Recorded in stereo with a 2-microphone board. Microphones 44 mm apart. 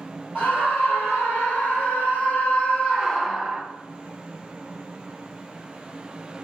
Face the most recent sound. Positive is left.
turn(degrees=-5)  # may be behind; listen again after turning